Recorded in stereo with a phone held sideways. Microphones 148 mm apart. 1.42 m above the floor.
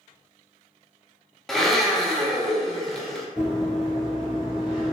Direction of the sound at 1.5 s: 5° left (ahead or behind).